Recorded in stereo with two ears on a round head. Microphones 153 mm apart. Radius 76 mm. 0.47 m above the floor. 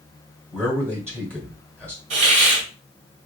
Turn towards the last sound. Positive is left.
turn(degrees=-40)  # may be behind; listen again after turning